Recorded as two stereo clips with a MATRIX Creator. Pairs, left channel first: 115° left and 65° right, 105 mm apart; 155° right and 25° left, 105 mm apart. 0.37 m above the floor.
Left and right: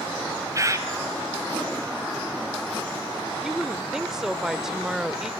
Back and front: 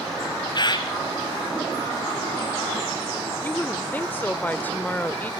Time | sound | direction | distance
0.6 | a bird | 120° right | 1.8 m
3.4 | a woman speaking | 140° right | 0.8 m